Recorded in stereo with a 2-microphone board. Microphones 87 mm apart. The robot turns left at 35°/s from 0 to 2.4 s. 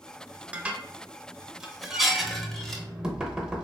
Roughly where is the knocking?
Centre.